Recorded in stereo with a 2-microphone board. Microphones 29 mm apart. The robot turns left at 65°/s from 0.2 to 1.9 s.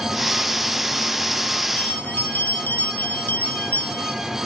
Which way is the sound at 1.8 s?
70° left (ahead or behind).